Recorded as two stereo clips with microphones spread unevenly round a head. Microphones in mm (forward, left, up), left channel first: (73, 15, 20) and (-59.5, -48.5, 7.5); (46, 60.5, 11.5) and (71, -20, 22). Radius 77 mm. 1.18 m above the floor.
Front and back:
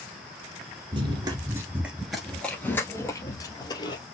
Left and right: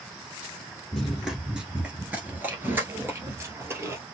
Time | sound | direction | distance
0.9 | running footsteps | 150° right | 1.2 m